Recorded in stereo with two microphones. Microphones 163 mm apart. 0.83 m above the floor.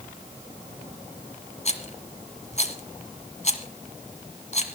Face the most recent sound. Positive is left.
turn(degrees=50)  # may be behind; listen again after turning